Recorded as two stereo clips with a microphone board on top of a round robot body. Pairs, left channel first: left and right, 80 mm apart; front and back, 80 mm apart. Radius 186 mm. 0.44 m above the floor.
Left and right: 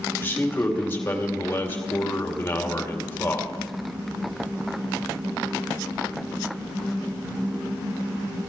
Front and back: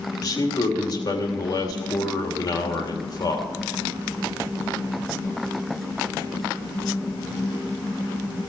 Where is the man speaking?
30° left, 2.5 m.